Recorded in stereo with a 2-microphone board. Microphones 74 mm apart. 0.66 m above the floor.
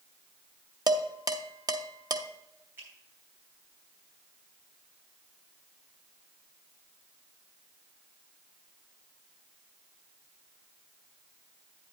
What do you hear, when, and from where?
0.9 s dishes clattering: 60° right (ahead or behind), 0.8 m
2.8 s a finger snap: 30° right (ahead or behind), 4.5 m